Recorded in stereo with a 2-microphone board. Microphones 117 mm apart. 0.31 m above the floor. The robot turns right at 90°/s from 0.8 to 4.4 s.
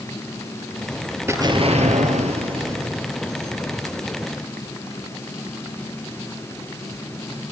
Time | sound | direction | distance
1.3 | an explosion | 160° right | 3 m